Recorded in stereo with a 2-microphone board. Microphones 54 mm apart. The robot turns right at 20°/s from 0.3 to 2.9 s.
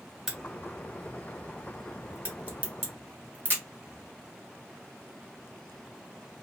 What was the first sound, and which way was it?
A crack, 5° left (ahead or behind).